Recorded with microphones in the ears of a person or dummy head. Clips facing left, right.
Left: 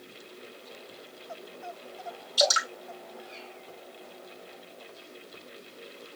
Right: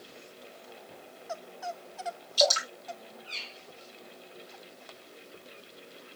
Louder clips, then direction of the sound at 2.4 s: Even; 5° left (ahead or behind).